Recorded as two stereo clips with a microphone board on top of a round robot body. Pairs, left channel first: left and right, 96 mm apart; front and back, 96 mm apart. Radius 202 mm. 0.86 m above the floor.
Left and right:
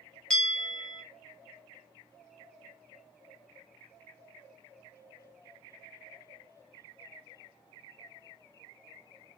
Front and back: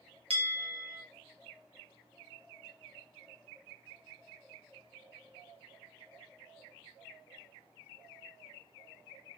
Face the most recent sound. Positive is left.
turn(degrees=170)